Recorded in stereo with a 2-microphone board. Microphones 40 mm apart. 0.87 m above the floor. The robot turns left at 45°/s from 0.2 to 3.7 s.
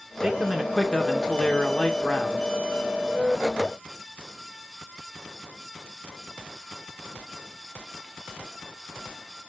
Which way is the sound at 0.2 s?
170° right.